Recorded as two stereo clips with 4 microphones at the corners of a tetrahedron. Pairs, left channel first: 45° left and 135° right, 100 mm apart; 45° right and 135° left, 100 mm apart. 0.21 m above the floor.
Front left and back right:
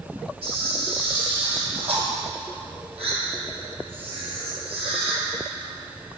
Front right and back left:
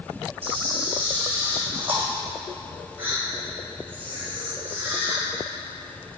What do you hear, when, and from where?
0.4 s a camera shutter: 155° right, 2 m